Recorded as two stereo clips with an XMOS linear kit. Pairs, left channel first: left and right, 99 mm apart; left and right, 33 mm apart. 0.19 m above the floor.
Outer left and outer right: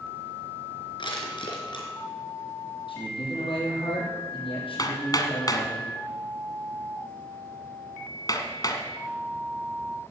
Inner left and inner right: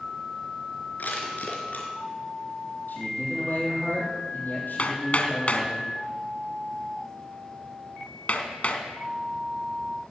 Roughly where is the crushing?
Left.